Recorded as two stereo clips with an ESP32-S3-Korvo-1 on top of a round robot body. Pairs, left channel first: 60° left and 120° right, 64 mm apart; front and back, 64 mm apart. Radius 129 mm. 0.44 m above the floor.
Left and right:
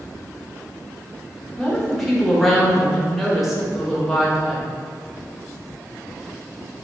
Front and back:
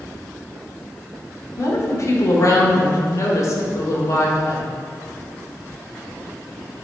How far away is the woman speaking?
About 1.8 m.